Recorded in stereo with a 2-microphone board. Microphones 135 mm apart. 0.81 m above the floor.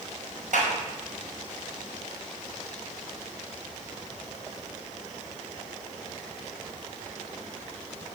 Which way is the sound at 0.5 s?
70° right (ahead or behind).